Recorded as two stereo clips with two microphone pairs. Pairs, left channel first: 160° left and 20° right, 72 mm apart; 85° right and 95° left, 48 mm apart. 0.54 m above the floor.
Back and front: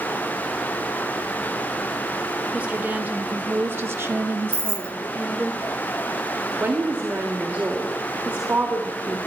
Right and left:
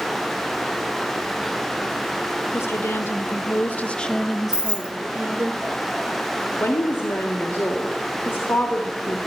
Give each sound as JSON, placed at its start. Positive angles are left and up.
{"t": 2.5, "sound": "a woman speaking", "azimuth_deg": -90, "distance_m": 1.6}
{"t": 4.5, "sound": "keys jangling", "azimuth_deg": 25, "distance_m": 0.7}
{"t": 6.6, "sound": "a woman speaking", "azimuth_deg": -80, "distance_m": 1.5}